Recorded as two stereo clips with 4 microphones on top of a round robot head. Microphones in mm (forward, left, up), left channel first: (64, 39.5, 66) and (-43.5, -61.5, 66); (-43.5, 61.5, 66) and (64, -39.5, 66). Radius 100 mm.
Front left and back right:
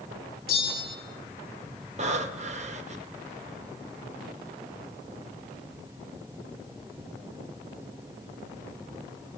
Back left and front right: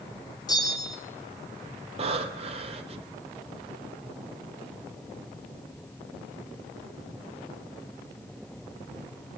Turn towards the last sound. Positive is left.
turn(degrees=-95)